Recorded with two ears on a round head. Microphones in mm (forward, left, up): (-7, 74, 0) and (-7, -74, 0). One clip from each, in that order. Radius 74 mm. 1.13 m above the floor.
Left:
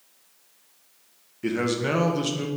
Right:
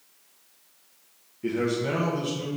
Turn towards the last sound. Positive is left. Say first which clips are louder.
# left 1 dB
turn(degrees=45)  # may be behind; listen again after turning